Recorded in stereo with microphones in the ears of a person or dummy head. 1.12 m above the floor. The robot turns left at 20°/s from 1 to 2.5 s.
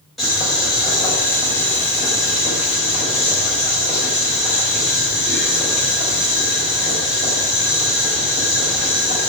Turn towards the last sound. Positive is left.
turn(degrees=150)